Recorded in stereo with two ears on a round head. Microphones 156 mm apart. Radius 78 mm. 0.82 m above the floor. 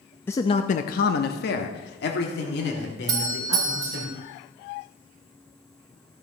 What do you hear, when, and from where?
0.3 s a man speaking: 10° left (ahead or behind), 0.6 m; by 4.1 s 65° left (ahead or behind), 3.5 m
3.1 s a doorbell: 20° right (ahead or behind), 1.8 m